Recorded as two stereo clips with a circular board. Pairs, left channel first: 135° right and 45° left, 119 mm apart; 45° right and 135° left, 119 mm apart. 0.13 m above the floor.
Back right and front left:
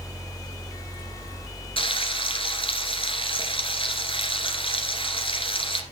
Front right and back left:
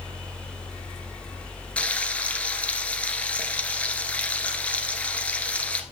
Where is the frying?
120° right, 1.5 m.